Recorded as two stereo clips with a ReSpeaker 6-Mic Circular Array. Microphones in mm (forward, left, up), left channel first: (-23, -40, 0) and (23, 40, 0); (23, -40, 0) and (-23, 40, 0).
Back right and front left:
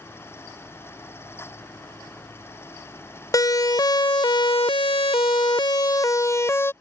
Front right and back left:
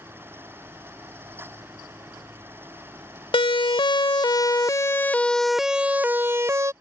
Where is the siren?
75° right; by 6.7 s 175° left.